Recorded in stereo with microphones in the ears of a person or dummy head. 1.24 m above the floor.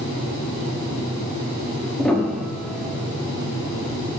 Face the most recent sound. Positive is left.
turn(degrees=5)  # may be behind; listen again after turning